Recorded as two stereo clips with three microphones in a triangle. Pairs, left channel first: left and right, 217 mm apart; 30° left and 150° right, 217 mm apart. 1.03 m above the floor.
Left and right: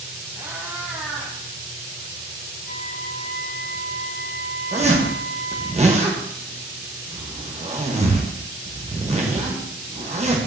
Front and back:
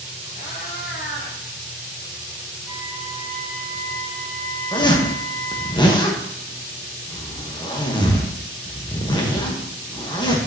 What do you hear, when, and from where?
0.3 s a cat meowing: 15° right, 1.8 m; by 1.4 s straight ahead, 2.5 m
2.6 s a violin: 75° left, 4 m
4.7 s a zipper: 40° right, 1.2 m